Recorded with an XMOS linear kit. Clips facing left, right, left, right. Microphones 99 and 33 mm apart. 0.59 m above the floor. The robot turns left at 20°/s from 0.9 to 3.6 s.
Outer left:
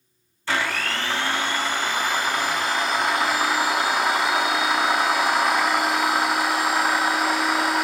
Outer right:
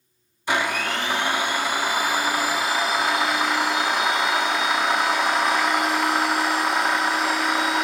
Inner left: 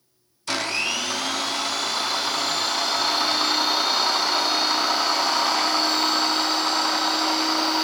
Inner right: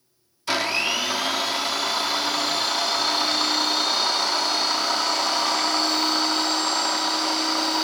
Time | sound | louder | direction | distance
0.5 | a blender | outer right 2 dB, inner right 2 dB | 15° right (ahead or behind) | 0.5 m